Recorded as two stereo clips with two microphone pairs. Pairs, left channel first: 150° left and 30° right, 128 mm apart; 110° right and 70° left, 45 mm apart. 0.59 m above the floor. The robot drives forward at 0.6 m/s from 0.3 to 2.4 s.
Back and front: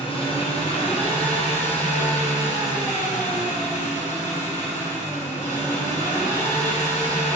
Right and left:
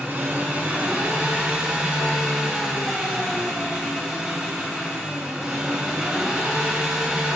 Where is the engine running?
115° left, 1.8 m; by 7.3 s 145° left, 2.5 m.